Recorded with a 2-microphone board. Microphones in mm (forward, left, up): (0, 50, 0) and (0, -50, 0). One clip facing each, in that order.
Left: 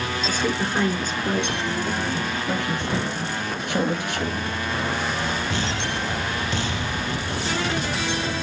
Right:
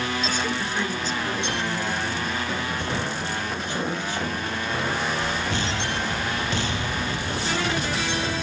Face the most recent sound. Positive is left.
turn(degrees=75)  # may be behind; listen again after turning